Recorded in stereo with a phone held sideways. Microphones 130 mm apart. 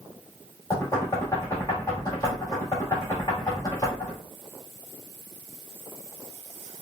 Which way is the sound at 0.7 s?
25° left (ahead or behind).